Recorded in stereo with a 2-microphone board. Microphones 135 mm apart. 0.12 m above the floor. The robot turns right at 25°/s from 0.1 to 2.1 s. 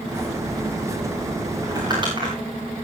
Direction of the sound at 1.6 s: 25° right (ahead or behind).